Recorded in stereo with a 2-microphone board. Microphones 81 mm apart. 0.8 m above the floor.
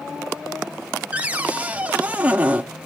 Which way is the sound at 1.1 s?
20° right (ahead or behind).